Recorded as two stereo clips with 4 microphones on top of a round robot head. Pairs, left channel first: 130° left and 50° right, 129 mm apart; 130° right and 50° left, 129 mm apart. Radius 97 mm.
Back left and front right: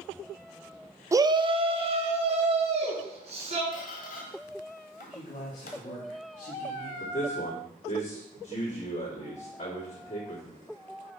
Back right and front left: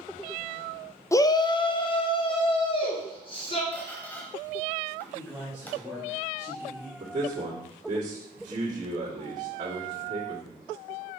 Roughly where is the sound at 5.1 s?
Behind left.